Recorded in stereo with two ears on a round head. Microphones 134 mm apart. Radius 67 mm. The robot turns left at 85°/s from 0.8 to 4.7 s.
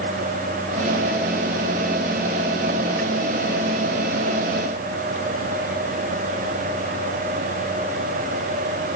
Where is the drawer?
I don't hear a drawer.